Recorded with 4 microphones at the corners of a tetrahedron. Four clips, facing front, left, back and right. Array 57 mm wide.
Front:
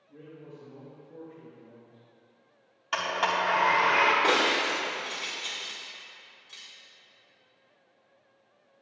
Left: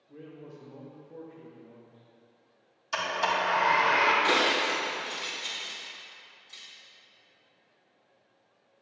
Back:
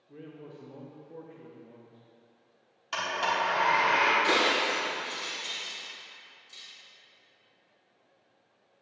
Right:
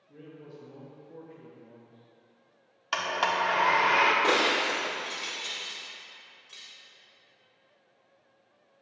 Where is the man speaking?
165° left, 1.1 m; by 2.0 s 80° right, 0.8 m.